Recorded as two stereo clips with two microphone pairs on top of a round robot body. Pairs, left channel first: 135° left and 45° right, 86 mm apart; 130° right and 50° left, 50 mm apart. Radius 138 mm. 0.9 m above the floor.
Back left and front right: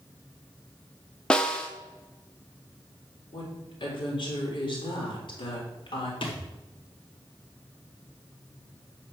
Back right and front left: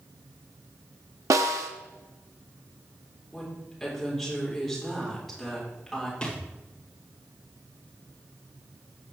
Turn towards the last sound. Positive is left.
turn(degrees=155)